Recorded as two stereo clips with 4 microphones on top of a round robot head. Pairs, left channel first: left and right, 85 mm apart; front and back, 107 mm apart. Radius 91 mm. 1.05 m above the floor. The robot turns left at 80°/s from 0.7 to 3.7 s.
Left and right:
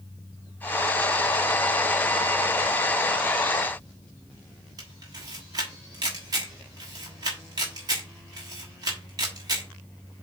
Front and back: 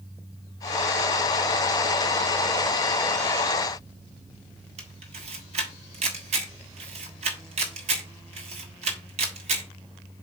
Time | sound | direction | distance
4.8 | a camera shutter | 145° right | 1.4 m